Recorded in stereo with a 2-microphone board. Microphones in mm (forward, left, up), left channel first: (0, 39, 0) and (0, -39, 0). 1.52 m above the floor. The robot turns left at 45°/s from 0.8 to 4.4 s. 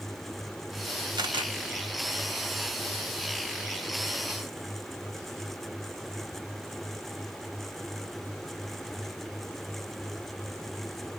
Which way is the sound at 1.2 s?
70° right (ahead or behind).